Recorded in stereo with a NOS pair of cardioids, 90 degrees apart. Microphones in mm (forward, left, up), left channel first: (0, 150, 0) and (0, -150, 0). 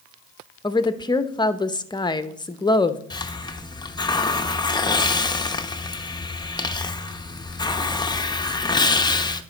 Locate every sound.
0.6 s a woman speaking: 15° left, 0.7 m
3.1 s a hiss: 15° left, 0.6 m